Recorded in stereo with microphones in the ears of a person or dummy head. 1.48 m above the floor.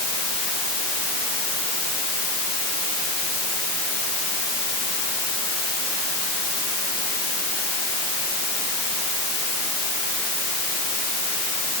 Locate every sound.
Only background noise.